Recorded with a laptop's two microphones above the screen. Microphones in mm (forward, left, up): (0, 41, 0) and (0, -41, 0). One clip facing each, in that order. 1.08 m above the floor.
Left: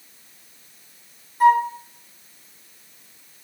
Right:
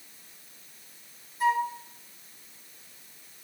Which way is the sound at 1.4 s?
50° left (ahead or behind).